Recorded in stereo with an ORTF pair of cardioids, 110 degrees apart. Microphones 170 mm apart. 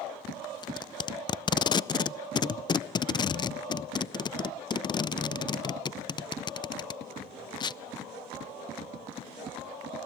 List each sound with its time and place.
0.6 s tape being pulled: 25° left, 0.5 m